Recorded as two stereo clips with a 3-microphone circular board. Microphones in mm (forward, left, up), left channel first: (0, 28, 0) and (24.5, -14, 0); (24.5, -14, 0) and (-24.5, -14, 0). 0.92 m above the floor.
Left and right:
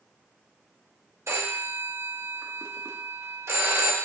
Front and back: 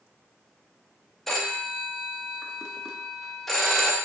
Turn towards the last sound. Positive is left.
turn(degrees=-85)